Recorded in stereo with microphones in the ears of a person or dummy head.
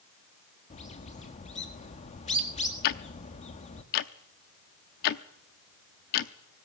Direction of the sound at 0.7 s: 30° left (ahead or behind).